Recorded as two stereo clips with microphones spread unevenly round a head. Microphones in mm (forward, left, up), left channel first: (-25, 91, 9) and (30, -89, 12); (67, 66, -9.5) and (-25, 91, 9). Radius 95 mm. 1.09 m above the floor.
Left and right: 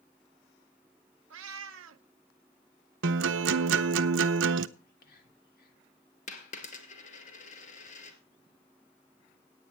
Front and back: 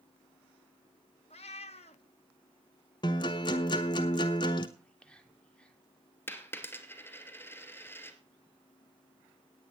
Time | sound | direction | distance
1.3 | a cat meowing | 60° right | 0.8 m
3.0 | a guitar | 60° right | 0.8 m
4.8 | whispering | 65° left | 3 m
6.3 | a dropped coin | 55° left | 2.5 m